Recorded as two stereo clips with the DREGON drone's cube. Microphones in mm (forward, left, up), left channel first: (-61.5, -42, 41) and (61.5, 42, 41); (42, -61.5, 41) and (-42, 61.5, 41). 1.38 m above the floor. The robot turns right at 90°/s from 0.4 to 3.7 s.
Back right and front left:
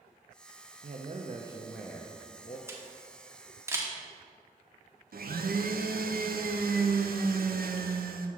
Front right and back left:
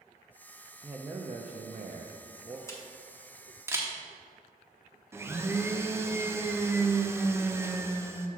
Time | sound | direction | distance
0.8 | a man speaking | 40° left | 0.5 m
2.7 | a camera shutter | 15° right | 0.9 m
5.1 | a blender | 50° left | 0.5 m